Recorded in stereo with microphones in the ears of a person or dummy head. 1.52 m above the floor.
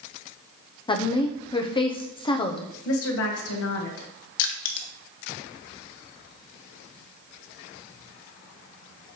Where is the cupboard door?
I don't hear a cupboard door.